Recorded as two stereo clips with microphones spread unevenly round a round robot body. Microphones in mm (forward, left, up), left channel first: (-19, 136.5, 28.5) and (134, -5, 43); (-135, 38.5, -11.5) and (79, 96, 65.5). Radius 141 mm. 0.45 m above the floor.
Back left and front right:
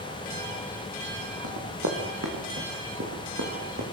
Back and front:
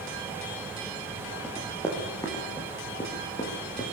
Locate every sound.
1.4 s running footsteps: 80° right, 6.5 m; by 3.8 s 90° right, 7.5 m